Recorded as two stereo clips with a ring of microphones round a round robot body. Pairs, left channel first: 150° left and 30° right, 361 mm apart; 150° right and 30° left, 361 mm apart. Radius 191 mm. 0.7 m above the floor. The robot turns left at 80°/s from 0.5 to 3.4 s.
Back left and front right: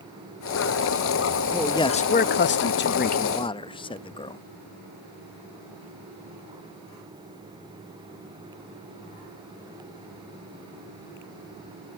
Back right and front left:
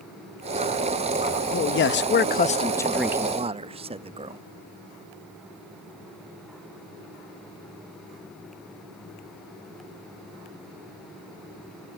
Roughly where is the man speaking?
Behind right.